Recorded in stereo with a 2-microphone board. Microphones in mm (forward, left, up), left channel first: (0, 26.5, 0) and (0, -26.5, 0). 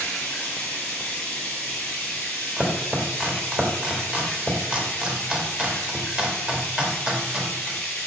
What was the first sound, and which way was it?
Running water, 20° left (ahead or behind).